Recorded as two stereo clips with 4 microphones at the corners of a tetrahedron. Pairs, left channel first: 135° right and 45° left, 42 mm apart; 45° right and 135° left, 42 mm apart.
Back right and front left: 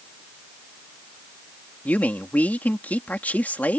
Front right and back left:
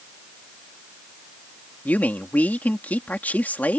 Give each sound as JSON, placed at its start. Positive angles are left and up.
{"t": 1.9, "sound": "a man speaking", "azimuth_deg": -90}